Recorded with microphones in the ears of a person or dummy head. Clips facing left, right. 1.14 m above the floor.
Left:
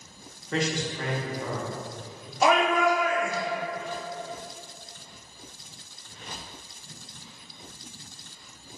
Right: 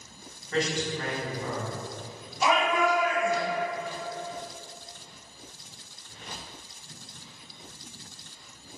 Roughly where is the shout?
Left.